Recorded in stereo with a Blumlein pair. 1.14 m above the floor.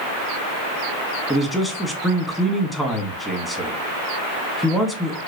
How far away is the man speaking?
About 0.8 m.